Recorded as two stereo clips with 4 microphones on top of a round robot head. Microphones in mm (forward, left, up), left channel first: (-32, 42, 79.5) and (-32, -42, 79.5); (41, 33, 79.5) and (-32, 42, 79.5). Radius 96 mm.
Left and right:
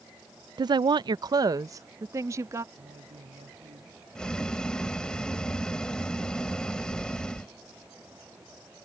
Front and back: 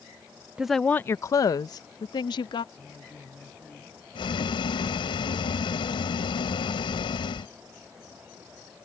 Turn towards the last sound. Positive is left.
turn(degrees=10)